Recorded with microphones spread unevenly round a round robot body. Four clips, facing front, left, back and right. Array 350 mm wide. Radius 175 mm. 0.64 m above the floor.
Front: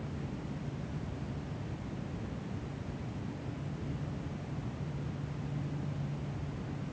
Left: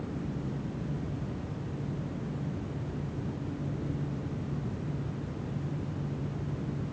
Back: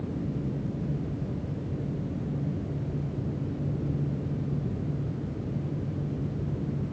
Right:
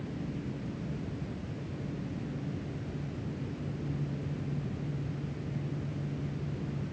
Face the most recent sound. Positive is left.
No sound to turn to.